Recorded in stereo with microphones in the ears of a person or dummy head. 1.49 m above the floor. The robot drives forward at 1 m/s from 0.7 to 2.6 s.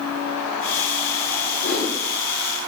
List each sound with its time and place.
1.6 s a whoosh: 35° left (ahead or behind), 6 m